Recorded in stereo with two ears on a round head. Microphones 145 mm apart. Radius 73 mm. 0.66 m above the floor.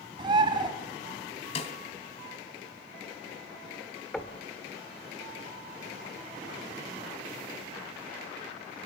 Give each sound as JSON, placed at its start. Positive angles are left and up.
{"t": 0.2, "sound": "a bird", "side_deg": -30, "distance_m": 1.7}
{"t": 1.6, "sound": "a snare drum", "side_deg": 40, "distance_m": 1.4}
{"t": 4.1, "sound": "knocking", "side_deg": 5, "distance_m": 1.3}